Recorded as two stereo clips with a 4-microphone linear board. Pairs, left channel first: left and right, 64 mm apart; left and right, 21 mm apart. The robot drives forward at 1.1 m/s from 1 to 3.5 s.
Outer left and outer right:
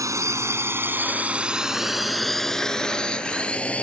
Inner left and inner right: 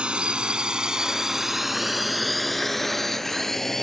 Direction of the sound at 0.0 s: 60° right (ahead or behind).